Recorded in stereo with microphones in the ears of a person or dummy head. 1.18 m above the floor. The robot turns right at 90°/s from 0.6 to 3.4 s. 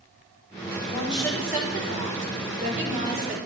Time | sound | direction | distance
0.8 | a woman speaking | 130° left | 5 m